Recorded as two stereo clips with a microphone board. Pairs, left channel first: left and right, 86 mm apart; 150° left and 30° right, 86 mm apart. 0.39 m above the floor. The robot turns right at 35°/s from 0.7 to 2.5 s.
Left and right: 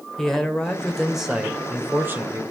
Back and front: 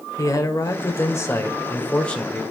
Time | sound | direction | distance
0.2 | a man speaking | 170° left | 1.5 m